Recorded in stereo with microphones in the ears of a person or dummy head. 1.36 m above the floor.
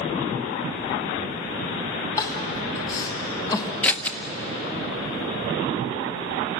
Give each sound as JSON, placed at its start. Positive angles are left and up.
{"t": 2.2, "sound": "crying", "side_deg": 20, "distance_m": 2.5}
{"t": 3.8, "sound": "scissors", "side_deg": 10, "distance_m": 0.9}